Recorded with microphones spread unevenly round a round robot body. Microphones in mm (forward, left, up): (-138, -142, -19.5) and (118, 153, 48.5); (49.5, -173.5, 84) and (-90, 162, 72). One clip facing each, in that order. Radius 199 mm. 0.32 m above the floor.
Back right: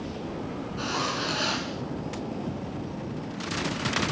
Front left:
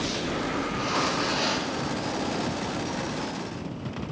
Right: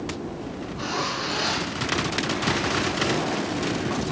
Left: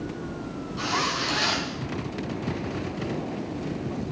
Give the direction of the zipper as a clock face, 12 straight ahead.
7 o'clock.